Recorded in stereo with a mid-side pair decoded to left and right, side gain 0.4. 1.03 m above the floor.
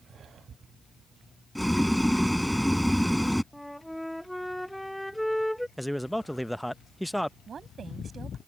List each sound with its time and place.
1.6 s boiling: straight ahead
3.5 s a flute: 5° left
5.8 s a man speaking: 5° left
7.5 s a woman speaking: 50° right